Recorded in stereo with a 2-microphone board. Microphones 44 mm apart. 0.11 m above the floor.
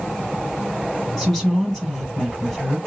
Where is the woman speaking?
15° left (ahead or behind), 3.5 m.